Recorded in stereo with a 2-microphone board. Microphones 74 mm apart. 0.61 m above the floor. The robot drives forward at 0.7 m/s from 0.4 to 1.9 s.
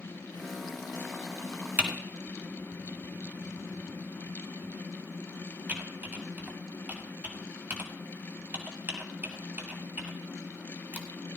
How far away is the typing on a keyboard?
About 1.7 m.